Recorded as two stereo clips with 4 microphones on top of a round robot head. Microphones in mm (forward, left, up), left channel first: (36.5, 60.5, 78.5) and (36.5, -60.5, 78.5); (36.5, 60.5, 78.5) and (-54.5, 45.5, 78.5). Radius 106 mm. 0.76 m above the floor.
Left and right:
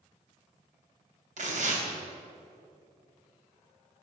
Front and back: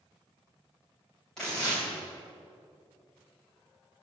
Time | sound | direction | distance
1.4 | tearing paper | 75° right | 3 m